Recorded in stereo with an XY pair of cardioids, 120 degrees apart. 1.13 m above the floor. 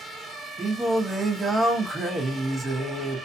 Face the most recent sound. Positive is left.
turn(degrees=-15)